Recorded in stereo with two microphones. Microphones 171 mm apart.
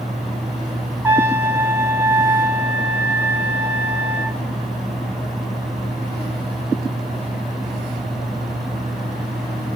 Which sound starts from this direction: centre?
A trumpet, at 1.0 s.